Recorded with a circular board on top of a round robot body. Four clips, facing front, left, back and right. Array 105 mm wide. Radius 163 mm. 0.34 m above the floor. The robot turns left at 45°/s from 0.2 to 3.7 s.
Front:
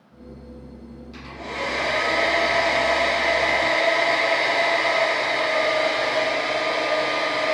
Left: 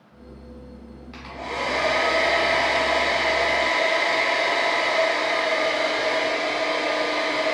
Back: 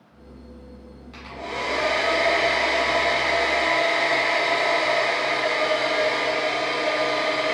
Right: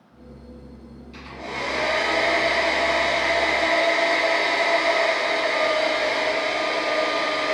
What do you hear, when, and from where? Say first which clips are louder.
1.1 s a hair dryer: left 2 dB, back 1 dB; 105° left, 1.1 m; by 7.5 s 10° right, 1.1 m